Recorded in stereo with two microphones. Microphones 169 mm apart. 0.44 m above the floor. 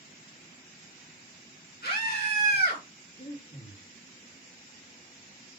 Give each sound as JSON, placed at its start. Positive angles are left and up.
{"t": 1.8, "sound": "a scream", "side_deg": 75, "distance_m": 5.5}
{"t": 3.1, "sound": "breathing", "side_deg": 40, "distance_m": 5.0}